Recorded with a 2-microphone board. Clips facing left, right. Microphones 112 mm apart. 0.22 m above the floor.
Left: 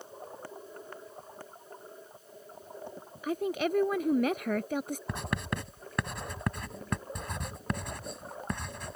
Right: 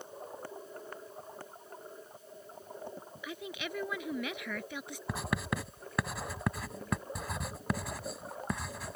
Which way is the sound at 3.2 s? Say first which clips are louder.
Left 12 dB; 45° left (ahead or behind).